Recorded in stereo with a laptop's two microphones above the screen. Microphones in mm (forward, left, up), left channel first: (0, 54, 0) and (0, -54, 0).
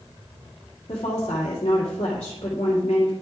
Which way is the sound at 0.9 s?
70° left (ahead or behind).